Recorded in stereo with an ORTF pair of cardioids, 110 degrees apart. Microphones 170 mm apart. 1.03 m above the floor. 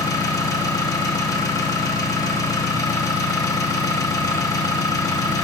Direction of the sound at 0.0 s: 20° left.